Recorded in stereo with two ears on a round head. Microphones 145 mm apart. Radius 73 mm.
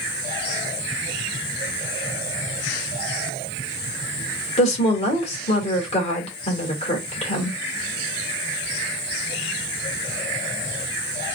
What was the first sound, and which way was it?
A woman speaking, 35° left (ahead or behind).